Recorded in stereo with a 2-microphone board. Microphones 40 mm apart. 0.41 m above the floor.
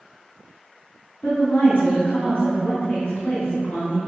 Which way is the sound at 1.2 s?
55° left (ahead or behind).